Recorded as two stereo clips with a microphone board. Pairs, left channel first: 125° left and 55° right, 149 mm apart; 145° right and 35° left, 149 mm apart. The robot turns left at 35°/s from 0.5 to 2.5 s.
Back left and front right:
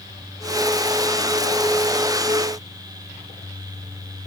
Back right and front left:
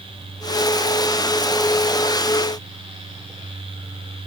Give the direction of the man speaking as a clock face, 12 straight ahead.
I don't hear a man speaking.